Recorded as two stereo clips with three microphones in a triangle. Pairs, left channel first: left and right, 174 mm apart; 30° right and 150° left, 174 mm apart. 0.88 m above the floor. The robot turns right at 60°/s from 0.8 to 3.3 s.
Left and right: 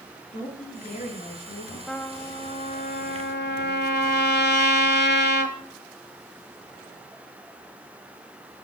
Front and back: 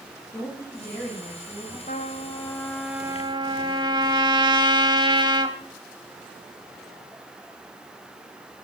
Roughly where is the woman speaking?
Ahead left.